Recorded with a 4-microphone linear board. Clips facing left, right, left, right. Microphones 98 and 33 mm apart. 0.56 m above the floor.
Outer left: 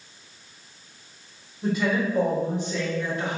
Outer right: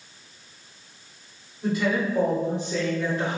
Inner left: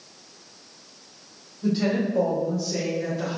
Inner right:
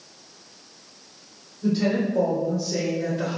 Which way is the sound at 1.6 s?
10° left (ahead or behind).